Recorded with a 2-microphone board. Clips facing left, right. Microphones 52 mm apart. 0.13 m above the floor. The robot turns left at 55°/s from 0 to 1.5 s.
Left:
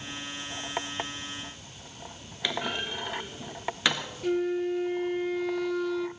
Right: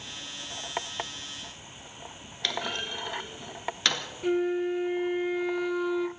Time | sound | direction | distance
2.4 | a clunk | 15° left (ahead or behind) | 1.5 m
4.2 | a flute | 15° right (ahead or behind) | 0.7 m